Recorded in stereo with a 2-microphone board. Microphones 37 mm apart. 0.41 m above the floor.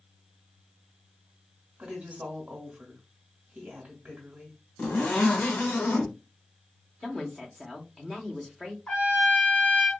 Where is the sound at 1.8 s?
35° right (ahead or behind), 1.2 m.